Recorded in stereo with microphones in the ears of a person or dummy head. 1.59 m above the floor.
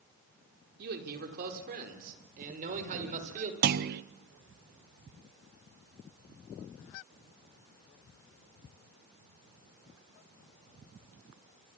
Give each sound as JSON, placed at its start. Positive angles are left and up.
{"t": 0.8, "sound": "a man speaking", "side_deg": -55, "distance_m": 4.0}
{"t": 3.6, "sound": "a clunk", "side_deg": -55, "distance_m": 0.8}